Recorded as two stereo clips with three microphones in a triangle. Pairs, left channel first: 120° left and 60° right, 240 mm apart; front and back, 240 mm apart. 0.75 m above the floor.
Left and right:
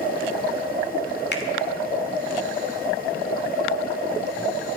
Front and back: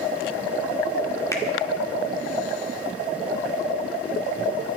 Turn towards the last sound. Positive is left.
turn(degrees=75)